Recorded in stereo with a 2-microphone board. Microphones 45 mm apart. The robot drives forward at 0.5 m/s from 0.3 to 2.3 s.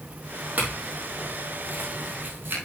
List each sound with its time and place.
0.6 s a clink: 40° right (ahead or behind), 4 m; by 2.6 s 50° right (ahead or behind), 3 m